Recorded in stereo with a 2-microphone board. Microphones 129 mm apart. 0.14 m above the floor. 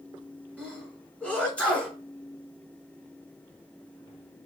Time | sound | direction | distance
0.6 | a sneeze | 10° left (ahead or behind) | 1.3 m